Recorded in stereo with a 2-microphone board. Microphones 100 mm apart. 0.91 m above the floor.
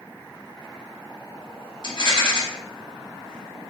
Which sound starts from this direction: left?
A rattle, at 1.8 s.